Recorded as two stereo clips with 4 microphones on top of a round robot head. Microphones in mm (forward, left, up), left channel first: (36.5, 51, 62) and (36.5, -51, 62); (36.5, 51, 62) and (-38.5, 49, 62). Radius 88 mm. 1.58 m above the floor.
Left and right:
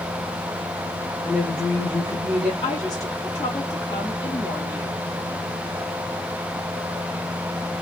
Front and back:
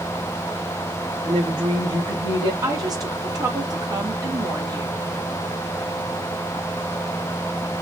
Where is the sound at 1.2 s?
170° left, 3 m; by 2.5 s 165° right, 2.5 m.